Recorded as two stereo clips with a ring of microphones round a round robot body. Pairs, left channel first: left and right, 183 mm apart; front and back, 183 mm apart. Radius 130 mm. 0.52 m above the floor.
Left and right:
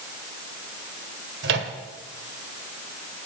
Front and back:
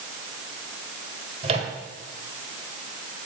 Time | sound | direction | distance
1.4 | a microwave | 115° right | 1.5 m